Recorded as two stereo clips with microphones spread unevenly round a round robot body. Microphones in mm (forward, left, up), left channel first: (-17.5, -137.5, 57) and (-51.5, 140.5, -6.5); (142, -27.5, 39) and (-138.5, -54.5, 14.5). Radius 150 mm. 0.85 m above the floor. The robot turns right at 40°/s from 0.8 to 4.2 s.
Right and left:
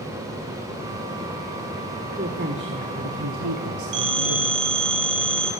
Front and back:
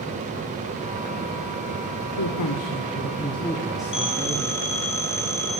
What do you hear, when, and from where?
2.2 s a woman speaking: 30° left, 2 m; by 4.6 s 115° left, 2 m
3.9 s a phone ringing: 75° left, 4 m; by 5.5 s 90° left, 4 m